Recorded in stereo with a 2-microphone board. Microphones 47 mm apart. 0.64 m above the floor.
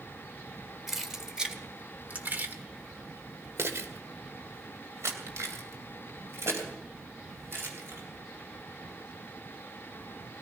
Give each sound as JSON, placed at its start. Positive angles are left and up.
{"t": 0.9, "sound": "keys jangling", "side_deg": -5, "distance_m": 1.9}